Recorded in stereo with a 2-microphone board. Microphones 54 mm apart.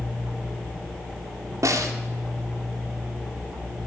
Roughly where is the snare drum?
Right.